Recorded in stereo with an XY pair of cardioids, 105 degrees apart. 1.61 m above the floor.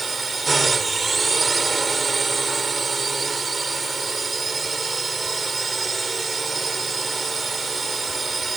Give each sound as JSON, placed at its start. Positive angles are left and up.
{"t": 0.0, "sound": "a drone", "azimuth_deg": -25}